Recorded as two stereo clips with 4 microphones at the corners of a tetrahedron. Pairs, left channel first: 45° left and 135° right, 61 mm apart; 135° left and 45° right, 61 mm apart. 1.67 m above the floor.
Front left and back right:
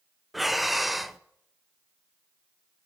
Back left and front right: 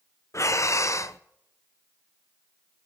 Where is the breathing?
140° left, 0.7 m.